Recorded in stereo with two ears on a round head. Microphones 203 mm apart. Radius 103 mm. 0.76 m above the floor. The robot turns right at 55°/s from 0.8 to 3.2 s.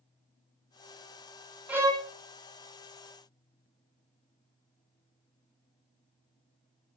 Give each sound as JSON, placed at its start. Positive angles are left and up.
{"t": 1.7, "sound": "a violin", "side_deg": -5, "distance_m": 0.7}